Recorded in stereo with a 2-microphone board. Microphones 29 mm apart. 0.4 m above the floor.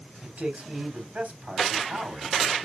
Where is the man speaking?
60° right (ahead or behind), 3 m.